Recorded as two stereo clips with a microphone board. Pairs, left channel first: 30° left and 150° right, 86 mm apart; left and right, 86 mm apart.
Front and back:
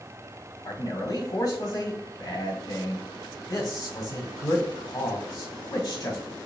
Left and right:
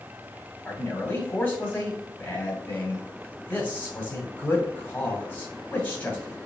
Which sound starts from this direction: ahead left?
A man speaking, at 0.7 s.